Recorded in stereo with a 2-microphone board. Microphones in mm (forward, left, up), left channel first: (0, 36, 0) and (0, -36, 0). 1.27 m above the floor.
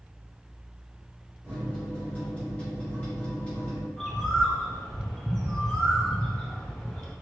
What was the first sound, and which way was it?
A microwave, 20° left (ahead or behind).